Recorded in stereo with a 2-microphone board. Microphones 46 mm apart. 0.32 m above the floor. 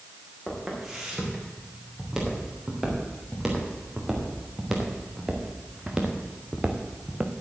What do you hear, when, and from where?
0.5 s footsteps: 5° right (ahead or behind), 6 m; by 7.3 s 20° right (ahead or behind), 1.6 m